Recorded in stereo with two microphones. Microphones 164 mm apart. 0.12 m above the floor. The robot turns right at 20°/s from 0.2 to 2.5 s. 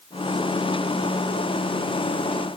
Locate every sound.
Only background noise.